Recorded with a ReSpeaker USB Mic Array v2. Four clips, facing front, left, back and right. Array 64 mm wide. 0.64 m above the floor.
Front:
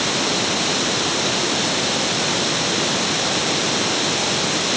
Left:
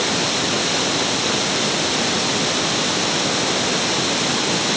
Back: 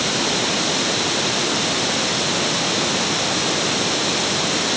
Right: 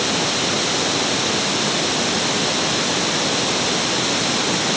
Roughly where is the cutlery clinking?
I don't hear cutlery clinking.